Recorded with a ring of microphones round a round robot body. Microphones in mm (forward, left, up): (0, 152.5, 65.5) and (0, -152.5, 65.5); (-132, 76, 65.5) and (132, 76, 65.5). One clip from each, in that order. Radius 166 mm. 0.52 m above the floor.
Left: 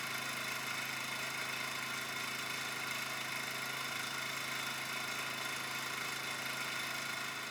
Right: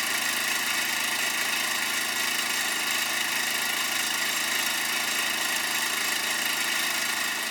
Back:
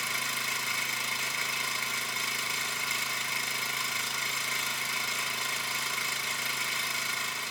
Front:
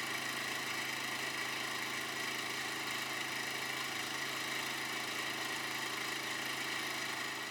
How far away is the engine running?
About 2.5 m.